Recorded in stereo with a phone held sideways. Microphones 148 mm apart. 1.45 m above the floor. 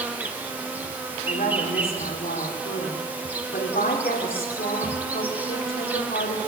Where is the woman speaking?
80° left, 4.5 m.